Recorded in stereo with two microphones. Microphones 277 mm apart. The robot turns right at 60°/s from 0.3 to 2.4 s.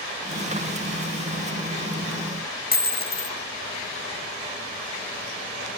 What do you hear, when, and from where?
2.7 s a dropped coin: 35° left (ahead or behind), 0.6 m